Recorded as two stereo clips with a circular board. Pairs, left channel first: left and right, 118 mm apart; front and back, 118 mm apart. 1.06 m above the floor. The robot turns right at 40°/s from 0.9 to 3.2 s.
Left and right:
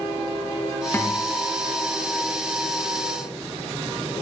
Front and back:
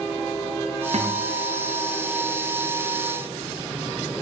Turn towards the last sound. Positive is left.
turn(degrees=-105)